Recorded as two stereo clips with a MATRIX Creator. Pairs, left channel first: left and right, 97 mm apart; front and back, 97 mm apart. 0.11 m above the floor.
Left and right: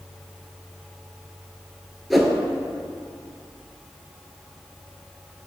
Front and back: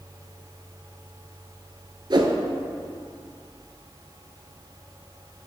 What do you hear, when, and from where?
2.1 s a whoosh: straight behind, 0.7 m